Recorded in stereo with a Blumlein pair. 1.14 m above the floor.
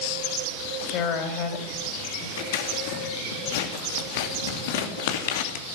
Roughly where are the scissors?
Ahead left.